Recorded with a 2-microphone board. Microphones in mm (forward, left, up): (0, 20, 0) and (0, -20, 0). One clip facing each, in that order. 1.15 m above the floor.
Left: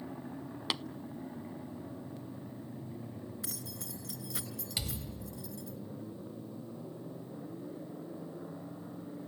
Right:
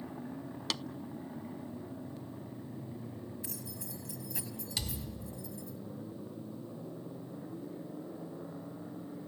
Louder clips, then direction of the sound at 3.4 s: Even; 80° left.